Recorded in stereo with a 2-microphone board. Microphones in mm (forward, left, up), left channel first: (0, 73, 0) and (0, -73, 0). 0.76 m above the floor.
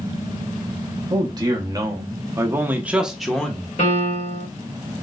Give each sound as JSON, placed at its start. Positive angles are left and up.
{"t": 1.1, "sound": "a man speaking", "side_deg": -30, "distance_m": 1.3}
{"t": 3.8, "sound": "a piano", "side_deg": 50, "distance_m": 2.0}